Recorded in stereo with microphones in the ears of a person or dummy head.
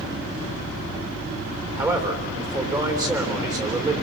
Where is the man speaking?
15° right (ahead or behind), 3.5 m.